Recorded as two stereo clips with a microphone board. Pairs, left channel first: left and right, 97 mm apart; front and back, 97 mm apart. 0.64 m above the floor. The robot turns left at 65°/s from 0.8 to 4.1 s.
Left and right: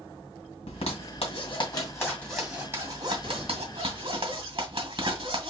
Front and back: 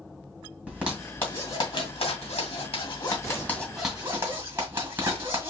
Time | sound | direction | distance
0.7 | a zipper | 100° left | 1.9 m